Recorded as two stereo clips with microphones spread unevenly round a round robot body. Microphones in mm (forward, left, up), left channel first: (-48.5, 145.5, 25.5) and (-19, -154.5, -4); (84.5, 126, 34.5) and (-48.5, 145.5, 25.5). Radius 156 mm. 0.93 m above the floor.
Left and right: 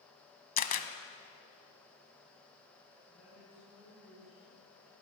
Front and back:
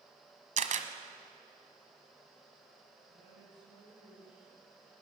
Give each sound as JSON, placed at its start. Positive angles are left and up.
{"t": 0.6, "sound": "a camera shutter", "azimuth_deg": 150, "distance_m": 1.4}
{"t": 3.1, "sound": "a woman speaking", "azimuth_deg": -170, "distance_m": 9.5}